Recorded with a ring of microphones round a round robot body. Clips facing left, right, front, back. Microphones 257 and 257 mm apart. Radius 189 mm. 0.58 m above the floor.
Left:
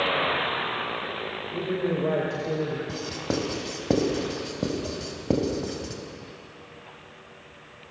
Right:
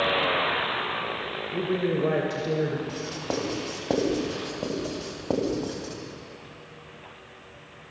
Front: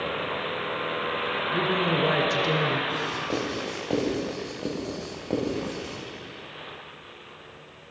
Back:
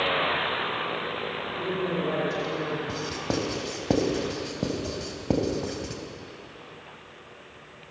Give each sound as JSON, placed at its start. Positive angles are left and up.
{"t": 1.5, "sound": "a woman speaking", "azimuth_deg": -20, "distance_m": 3.0}
{"t": 2.9, "sound": "writing", "azimuth_deg": 150, "distance_m": 4.0}